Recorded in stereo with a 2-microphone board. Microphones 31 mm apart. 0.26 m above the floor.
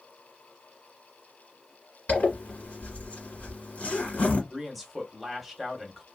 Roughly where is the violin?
No violin in this recording.